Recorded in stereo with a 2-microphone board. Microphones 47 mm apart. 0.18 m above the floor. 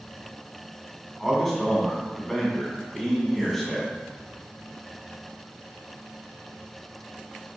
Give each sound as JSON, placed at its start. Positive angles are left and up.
{"t": 1.2, "sound": "a man speaking", "side_deg": 0, "distance_m": 1.2}